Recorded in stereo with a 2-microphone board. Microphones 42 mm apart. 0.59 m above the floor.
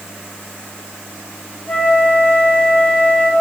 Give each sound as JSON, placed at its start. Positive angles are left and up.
{"t": 1.7, "sound": "a flute", "side_deg": 50, "distance_m": 2.5}